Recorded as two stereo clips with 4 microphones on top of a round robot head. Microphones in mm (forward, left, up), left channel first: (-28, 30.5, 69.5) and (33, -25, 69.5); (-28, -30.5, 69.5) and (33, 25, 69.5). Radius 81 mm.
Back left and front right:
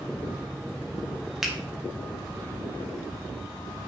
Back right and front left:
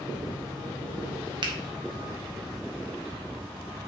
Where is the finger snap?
40° left, 1.9 m.